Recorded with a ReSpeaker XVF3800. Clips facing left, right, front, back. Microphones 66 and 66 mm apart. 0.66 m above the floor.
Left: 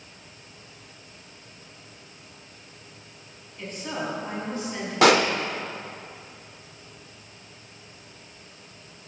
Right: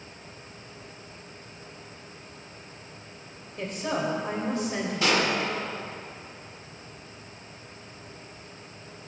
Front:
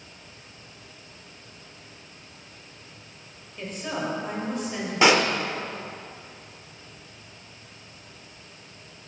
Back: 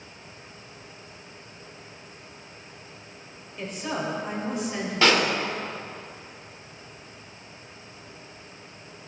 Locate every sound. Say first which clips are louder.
3.6 s a woman speaking: right 3 dB, even; 95° right, 2.5 m
5.0 s a pop: left 8 dB, front 2 dB; 70° left, 0.6 m